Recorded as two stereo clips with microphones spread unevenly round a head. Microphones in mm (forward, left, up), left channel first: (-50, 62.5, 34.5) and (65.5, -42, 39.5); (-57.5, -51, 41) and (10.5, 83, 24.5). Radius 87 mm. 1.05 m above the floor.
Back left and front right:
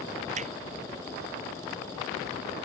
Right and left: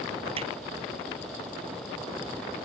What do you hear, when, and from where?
0.4 s hammering: 5° left